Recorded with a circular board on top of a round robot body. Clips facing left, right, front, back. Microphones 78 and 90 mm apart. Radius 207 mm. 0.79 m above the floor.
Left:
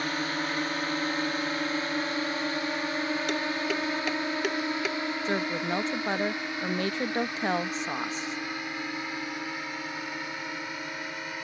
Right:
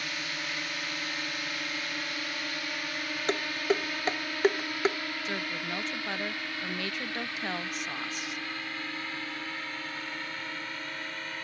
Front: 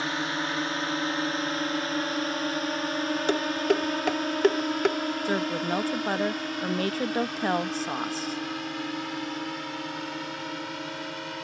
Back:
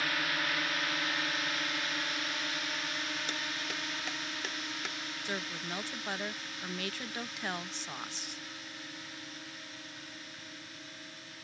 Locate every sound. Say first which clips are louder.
0.0 s a drone: left 7 dB, front 5 dB; 55° left; by 11.4 s 15° left
3.3 s dishes clattering: even, front 15 dB; 35° right
5.2 s a woman speaking: left 7 dB, front 10 dB; 35° left